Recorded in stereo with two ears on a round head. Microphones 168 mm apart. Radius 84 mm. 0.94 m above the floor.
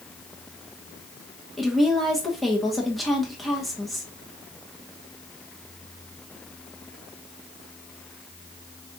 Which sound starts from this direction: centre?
A woman speaking, at 1.6 s.